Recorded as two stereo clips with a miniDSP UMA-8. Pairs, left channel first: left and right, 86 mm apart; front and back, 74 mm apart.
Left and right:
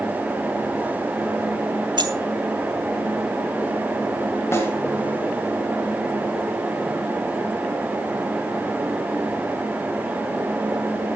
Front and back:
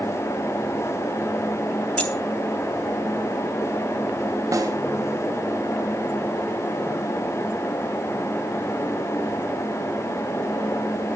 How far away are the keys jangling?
About 1.5 m.